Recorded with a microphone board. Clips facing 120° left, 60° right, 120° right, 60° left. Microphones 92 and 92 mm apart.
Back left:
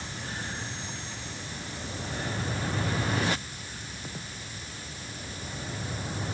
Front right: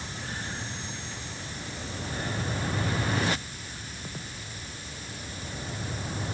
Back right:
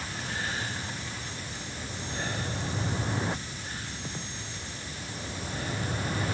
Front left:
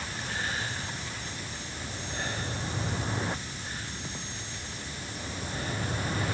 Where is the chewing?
No chewing in this recording.